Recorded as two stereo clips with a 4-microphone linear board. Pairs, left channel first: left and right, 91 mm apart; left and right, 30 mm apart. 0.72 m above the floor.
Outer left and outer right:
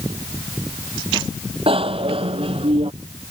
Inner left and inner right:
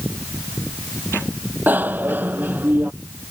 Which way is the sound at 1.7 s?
90° right.